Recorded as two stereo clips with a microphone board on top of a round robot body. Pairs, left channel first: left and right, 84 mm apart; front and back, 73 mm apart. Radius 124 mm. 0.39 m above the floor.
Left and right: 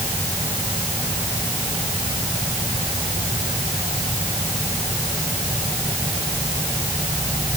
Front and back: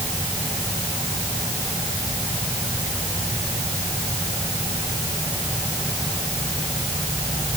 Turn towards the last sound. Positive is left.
No sound to turn to.